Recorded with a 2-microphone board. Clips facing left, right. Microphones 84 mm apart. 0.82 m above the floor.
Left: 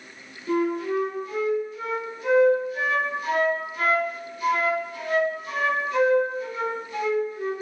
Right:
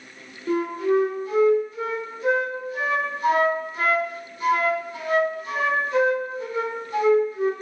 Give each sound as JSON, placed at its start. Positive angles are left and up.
{"t": 0.5, "sound": "a flute", "side_deg": -35, "distance_m": 1.5}